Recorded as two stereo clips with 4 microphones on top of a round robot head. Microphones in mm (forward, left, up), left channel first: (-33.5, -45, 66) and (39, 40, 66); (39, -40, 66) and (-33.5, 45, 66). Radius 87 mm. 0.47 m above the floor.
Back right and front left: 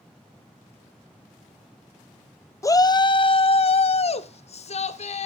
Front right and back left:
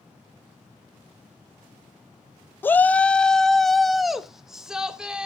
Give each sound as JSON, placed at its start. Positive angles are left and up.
{"t": 2.6, "sound": "a shout", "azimuth_deg": -100, "distance_m": 0.7}